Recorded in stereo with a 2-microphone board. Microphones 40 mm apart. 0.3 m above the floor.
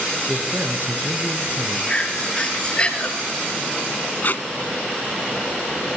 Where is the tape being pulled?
50° left (ahead or behind), 1.5 m.